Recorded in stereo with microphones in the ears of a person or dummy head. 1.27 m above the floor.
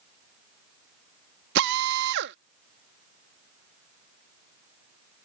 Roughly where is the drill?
Right.